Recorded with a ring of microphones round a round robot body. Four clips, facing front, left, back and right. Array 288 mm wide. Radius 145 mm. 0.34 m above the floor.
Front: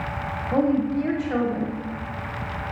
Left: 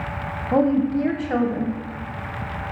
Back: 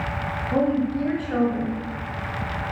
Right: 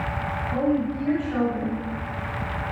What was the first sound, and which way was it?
A woman speaking, 80° left.